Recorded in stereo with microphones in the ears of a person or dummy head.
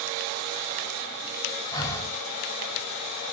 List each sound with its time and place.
1.7 s breathing: 20° left (ahead or behind), 0.8 m